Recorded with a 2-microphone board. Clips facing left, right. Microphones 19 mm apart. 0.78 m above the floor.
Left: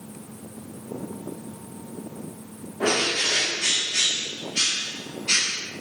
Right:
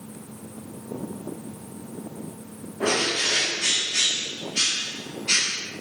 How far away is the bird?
About 0.7 m.